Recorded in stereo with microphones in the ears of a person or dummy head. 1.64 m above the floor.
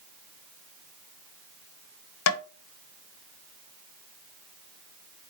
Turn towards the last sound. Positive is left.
turn(degrees=80)